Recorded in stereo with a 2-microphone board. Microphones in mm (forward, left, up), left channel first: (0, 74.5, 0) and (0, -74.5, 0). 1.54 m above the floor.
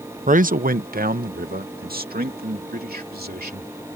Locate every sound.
0.3 s a man speaking: 60° right (ahead or behind); by 4.0 s 90° right